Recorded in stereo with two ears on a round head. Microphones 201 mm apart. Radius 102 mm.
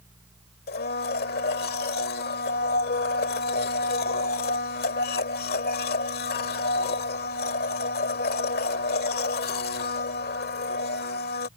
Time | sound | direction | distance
0.7 | a blender | 45° left (ahead or behind) | ?